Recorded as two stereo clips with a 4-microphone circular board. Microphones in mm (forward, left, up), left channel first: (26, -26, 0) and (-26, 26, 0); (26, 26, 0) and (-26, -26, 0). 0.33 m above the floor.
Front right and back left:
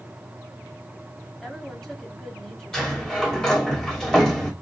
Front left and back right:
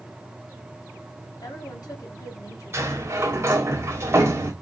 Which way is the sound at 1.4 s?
35° left.